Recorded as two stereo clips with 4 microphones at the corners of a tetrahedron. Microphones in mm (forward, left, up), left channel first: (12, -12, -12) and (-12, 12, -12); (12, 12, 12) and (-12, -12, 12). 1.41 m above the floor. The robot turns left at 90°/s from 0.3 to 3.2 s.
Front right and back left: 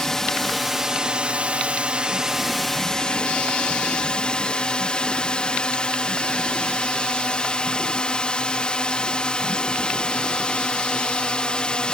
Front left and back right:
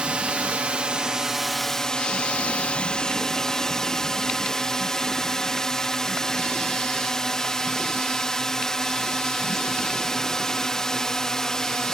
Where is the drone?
110° right; by 11.9 s 10° right.